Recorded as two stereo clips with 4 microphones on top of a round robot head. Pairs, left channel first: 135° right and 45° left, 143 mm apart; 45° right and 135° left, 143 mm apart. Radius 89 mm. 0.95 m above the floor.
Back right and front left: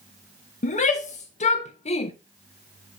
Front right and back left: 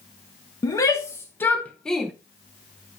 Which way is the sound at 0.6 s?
110° right.